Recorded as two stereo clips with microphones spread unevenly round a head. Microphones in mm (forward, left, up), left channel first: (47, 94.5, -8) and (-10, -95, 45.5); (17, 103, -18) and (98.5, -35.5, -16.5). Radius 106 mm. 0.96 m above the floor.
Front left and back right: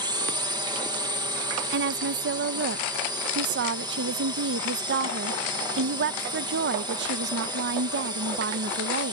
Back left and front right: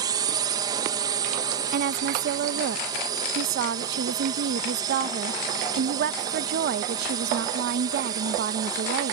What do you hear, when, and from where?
0.0 s a drone: 30° right
1.7 s a woman speaking: 70° right